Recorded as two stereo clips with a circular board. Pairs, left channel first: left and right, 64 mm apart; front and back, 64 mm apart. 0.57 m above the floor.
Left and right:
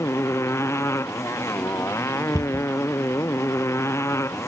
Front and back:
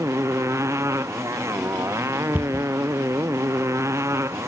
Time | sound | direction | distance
0.0 | a motorcycle | 135° left | ?
2.3 | a cupboard door | 115° right | ?